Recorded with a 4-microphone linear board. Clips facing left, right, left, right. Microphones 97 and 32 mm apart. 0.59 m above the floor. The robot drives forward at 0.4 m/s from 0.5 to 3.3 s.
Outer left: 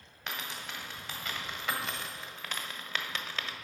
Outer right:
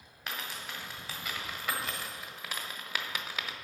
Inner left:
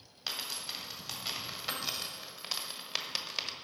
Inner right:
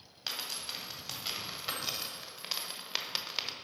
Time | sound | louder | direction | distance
0.3 | a dropped coin | even, even | 5° right (ahead or behind) | 1.9 m